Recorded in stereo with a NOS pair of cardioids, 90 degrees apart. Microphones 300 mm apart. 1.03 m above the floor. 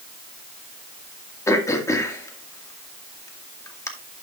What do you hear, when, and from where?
1.5 s throat clearing: 10° left, 1.7 m